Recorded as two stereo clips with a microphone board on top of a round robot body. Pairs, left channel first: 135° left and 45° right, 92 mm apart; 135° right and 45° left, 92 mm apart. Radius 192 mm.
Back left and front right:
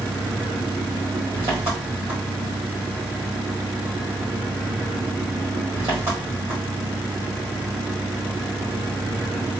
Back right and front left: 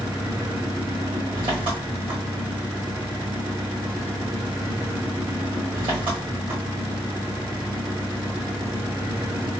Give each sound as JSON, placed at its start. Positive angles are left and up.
{"t": 0.0, "sound": "an engine running", "azimuth_deg": 20, "distance_m": 1.7}